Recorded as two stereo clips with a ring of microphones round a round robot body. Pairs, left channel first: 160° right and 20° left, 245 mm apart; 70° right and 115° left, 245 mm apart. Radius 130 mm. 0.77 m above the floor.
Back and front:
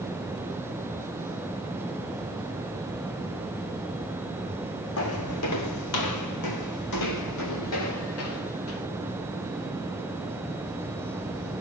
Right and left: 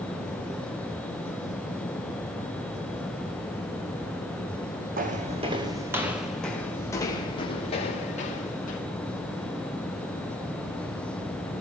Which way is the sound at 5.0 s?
170° left.